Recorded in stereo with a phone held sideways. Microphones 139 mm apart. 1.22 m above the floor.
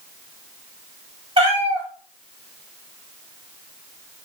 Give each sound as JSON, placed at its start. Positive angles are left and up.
{"t": 1.4, "sound": "a cat meowing", "side_deg": -45, "distance_m": 1.4}